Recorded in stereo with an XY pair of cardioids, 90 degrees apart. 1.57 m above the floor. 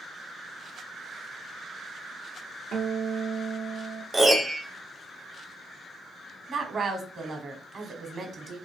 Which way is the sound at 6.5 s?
50° right.